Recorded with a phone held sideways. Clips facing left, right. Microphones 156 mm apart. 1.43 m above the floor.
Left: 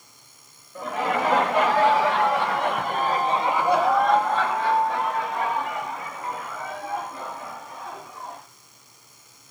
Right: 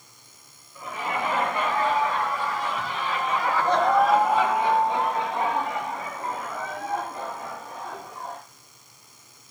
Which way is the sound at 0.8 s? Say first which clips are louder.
Left 5 dB; 80° left.